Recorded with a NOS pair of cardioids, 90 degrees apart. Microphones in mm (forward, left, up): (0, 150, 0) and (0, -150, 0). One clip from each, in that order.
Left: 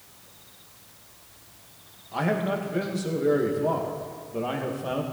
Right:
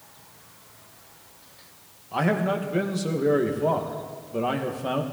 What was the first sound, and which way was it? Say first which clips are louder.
A man speaking: right 2 dB; 25° right.